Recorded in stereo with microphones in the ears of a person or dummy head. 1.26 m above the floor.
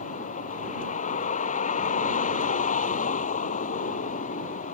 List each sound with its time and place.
0.0 s a vehicle: 45° left (ahead or behind)